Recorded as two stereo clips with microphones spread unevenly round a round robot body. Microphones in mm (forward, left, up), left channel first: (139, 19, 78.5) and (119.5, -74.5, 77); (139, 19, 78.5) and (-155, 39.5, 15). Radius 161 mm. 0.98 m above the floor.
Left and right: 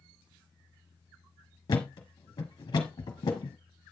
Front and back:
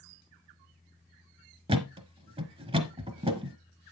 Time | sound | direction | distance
1.7 | a thud | 100° left | 1.1 m